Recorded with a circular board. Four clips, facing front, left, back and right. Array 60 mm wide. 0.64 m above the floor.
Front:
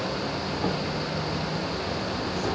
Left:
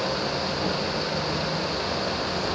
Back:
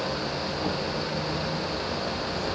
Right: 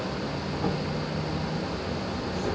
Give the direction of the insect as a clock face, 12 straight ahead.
12 o'clock.